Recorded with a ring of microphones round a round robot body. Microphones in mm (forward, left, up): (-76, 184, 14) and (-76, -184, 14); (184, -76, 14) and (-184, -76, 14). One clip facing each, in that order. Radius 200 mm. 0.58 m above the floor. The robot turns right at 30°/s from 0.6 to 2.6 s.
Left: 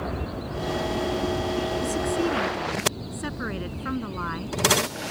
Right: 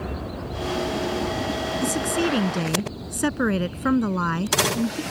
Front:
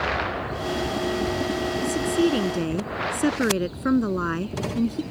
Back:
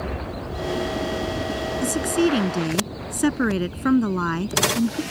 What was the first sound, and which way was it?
A woman speaking, 130° right.